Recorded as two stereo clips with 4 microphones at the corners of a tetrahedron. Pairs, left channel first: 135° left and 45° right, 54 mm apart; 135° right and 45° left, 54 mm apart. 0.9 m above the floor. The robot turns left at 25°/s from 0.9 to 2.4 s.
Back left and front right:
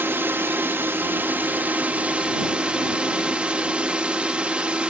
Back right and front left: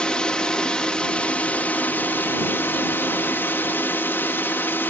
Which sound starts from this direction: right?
A drone, at 0.0 s.